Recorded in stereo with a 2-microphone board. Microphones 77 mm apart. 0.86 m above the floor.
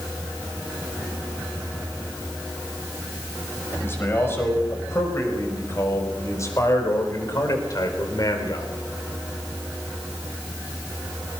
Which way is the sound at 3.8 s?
30° left (ahead or behind).